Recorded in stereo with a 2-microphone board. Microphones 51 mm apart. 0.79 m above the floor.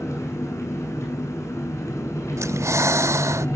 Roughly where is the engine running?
Left.